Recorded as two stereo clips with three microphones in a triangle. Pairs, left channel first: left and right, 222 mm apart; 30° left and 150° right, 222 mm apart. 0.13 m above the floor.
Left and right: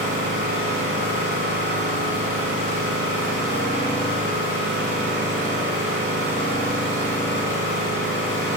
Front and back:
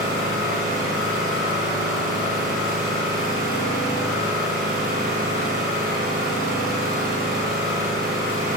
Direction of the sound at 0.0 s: 110° right.